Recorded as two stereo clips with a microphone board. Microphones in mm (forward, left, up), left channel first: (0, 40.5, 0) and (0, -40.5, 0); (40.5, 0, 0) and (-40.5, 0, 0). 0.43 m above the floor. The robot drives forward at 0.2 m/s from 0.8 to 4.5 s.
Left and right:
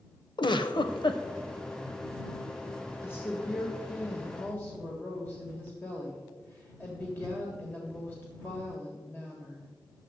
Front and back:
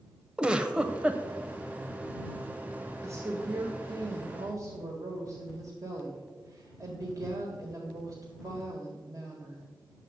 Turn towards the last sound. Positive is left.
turn(degrees=155)